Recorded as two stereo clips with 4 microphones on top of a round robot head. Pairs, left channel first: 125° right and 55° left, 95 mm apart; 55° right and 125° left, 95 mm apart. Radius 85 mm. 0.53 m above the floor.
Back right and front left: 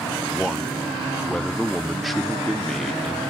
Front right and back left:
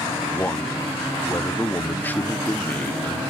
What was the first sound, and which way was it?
A man speaking, 35° right.